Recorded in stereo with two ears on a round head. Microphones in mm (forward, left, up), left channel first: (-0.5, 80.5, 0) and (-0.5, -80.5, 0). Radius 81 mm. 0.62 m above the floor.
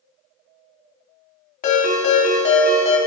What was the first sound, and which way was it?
A ringtone, 50° left (ahead or behind).